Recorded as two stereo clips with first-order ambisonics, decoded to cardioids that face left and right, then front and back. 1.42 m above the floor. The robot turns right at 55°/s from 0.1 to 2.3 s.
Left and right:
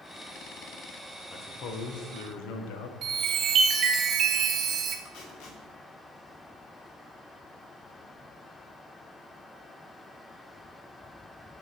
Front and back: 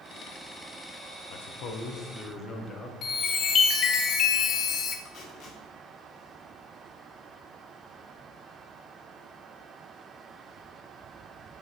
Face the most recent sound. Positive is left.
turn(degrees=60)